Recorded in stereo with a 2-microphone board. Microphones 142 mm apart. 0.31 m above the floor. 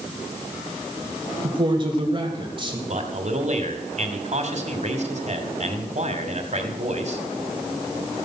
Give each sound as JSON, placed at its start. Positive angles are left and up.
{"t": 1.4, "sound": "a man speaking", "side_deg": -35, "distance_m": 1.8}
{"t": 2.9, "sound": "a man speaking", "side_deg": -55, "distance_m": 2.0}